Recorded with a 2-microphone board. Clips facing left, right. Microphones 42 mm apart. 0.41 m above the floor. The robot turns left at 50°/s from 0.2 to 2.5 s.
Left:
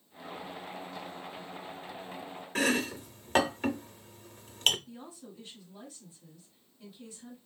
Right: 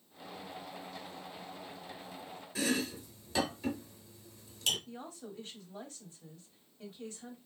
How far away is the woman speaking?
About 3 m.